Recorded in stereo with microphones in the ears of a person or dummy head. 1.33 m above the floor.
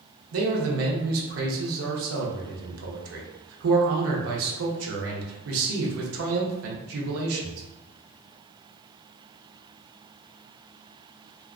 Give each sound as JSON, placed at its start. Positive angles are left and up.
{"t": 0.3, "sound": "a man speaking", "side_deg": -80, "distance_m": 0.7}